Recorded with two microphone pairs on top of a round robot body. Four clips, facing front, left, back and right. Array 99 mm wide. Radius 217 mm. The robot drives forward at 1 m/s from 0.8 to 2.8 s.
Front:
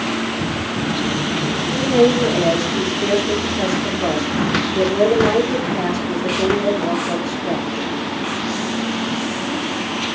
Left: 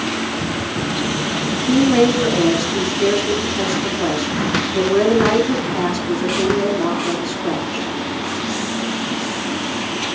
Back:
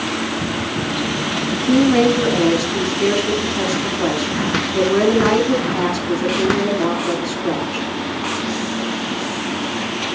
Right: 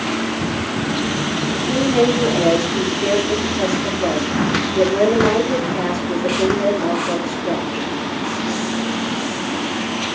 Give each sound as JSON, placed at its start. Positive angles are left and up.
{"t": 1.5, "sound": "a woman speaking", "azimuth_deg": 130, "distance_m": 5.5}